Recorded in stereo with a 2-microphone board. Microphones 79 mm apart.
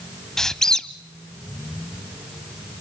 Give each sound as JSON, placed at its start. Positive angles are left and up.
{"t": 0.4, "sound": "a squeak", "side_deg": 5, "distance_m": 0.6}